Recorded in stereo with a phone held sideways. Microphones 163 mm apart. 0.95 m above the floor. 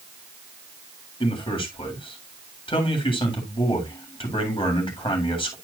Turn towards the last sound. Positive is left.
turn(degrees=35)  # may be behind; listen again after turning